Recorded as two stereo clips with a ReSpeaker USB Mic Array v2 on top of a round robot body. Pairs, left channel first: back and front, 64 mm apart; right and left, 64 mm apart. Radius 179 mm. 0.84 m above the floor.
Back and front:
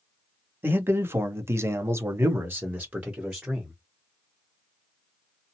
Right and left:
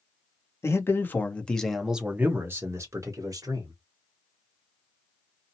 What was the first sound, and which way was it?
A man speaking, 55° right.